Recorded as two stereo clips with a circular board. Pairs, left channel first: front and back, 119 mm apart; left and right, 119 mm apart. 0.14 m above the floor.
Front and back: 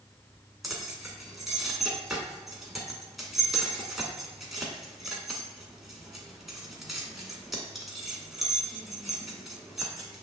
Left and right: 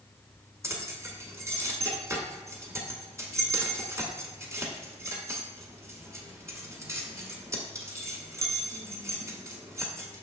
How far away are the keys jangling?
About 0.9 m.